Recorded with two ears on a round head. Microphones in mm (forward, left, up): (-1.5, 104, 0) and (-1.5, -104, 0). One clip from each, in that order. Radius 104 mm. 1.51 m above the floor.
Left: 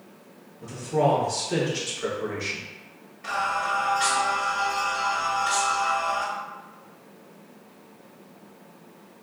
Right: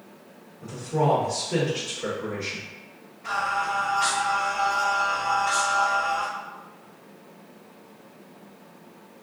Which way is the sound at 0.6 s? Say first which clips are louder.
Left 2 dB; 50° left (ahead or behind).